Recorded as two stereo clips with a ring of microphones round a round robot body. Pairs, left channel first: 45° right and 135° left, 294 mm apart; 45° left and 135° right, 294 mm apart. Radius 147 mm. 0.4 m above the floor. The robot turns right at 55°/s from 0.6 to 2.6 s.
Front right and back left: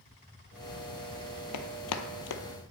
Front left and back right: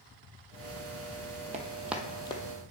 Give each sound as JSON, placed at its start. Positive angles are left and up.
{"t": 1.5, "sound": "running footsteps", "azimuth_deg": -70, "distance_m": 0.7}